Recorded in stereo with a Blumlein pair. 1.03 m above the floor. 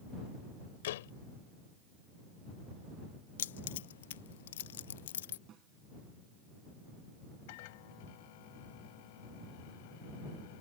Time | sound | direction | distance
0.8 | a door slam | 55° left | ?
3.4 | keys jangling | 60° left | ?
5.5 | a snare drum | 30° right | ?
7.5 | a microwave | 50° left | ?